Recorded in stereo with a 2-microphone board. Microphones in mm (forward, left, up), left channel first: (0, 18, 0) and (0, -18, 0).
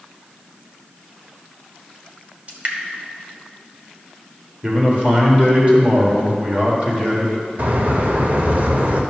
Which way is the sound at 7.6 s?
50° right (ahead or behind).